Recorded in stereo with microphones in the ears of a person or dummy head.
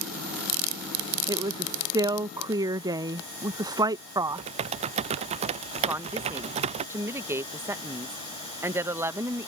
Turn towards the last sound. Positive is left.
turn(degrees=-10)  # may be behind; listen again after turning